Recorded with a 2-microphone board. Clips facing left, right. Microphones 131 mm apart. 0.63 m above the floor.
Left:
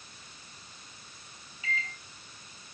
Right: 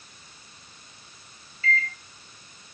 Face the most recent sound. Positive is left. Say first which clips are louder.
# right 8 dB
turn(degrees=15)  # may be behind; listen again after turning